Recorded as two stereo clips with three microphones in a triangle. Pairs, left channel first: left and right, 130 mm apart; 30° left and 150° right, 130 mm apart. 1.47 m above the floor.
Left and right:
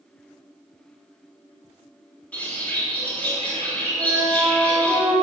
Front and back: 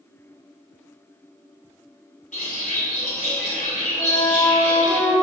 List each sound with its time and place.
2.3 s a bird: 10° left, 3 m
4.0 s a flute: 25° right, 2.5 m